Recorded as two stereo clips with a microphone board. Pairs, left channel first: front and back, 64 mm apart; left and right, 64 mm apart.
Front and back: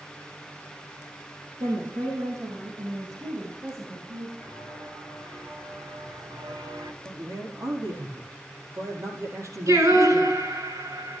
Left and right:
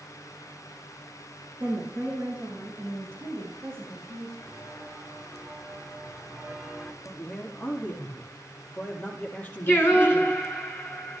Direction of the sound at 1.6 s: 155° right.